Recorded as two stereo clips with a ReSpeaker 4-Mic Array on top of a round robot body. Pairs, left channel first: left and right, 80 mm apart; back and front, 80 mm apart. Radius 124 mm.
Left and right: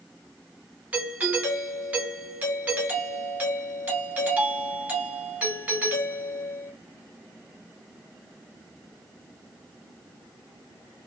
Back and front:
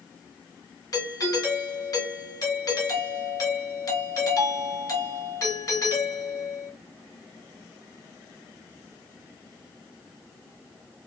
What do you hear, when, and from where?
0.9 s a doorbell: 155° right, 2.5 m